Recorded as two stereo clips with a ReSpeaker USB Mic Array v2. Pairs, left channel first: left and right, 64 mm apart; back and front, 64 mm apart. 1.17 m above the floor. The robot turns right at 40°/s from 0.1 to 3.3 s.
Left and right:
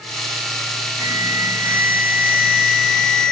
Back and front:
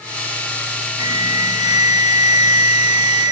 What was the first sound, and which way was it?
An alarm, 20° right.